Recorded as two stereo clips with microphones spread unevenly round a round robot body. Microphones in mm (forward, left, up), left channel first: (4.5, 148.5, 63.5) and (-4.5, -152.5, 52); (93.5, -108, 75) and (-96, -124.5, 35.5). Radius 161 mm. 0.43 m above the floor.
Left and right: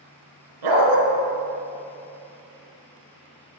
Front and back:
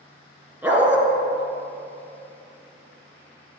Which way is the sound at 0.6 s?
90° right.